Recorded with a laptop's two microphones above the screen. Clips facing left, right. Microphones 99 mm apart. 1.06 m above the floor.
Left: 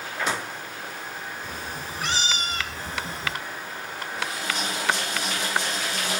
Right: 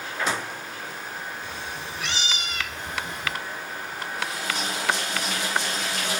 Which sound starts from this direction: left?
A cat meowing, at 1.4 s.